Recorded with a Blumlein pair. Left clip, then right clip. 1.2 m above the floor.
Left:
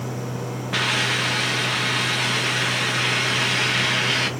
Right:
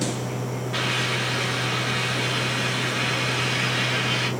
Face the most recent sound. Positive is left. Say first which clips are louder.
# left 4 dB
turn(degrees=30)